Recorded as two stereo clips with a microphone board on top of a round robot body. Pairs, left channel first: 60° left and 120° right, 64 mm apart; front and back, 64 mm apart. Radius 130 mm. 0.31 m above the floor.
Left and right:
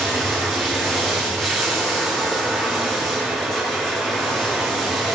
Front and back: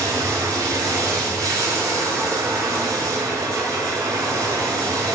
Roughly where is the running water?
Behind left.